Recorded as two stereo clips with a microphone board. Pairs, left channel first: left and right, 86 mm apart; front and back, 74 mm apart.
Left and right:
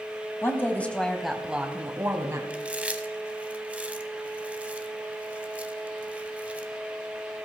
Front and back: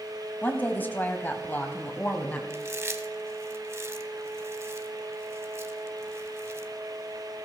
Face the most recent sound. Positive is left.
turn(degrees=-155)